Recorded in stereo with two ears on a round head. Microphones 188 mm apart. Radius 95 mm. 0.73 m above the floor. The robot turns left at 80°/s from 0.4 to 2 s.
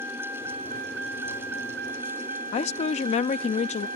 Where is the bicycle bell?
I don't hear a bicycle bell.